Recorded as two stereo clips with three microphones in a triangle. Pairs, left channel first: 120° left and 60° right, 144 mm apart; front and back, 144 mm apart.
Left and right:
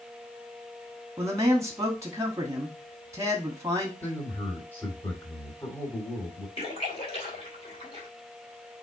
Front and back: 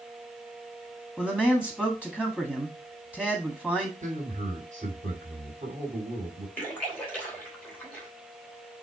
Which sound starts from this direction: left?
A splash, at 6.6 s.